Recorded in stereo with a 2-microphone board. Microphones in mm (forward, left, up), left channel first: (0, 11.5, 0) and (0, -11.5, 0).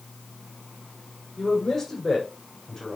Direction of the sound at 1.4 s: 25° left (ahead or behind).